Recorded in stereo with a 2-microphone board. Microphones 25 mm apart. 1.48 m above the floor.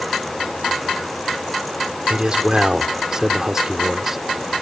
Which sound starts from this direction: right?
A man speaking, at 2.1 s.